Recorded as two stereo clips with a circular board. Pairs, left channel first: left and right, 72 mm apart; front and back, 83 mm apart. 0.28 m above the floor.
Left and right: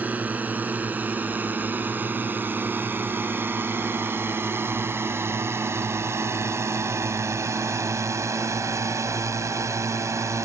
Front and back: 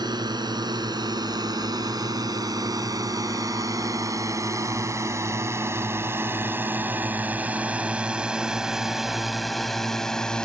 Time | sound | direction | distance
0.0 | a drone | 155° right | ?